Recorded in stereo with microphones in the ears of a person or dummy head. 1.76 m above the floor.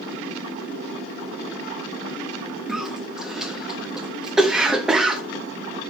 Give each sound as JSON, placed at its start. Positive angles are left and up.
{"t": 2.7, "sound": "a cough", "side_deg": -5, "distance_m": 0.5}